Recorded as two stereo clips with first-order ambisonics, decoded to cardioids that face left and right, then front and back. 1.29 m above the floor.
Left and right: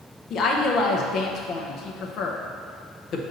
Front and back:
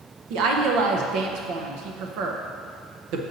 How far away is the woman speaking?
About 0.7 m.